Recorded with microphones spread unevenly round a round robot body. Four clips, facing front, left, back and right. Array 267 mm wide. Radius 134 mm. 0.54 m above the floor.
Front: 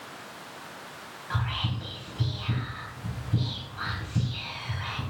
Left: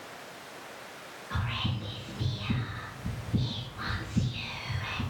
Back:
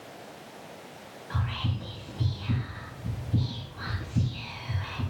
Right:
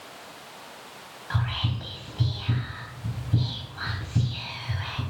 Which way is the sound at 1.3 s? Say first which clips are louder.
Right 4 dB, front 1 dB; 65° right.